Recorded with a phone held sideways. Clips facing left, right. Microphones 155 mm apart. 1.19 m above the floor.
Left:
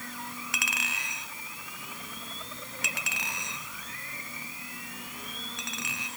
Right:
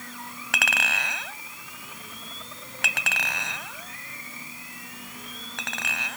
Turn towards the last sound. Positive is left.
turn(degrees=-75)  # may be behind; listen again after turning